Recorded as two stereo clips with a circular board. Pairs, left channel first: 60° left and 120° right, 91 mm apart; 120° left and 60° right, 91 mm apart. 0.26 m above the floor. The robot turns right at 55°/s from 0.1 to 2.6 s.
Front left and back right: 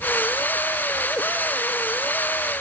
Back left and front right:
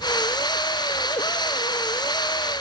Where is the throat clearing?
I don't hear throat clearing.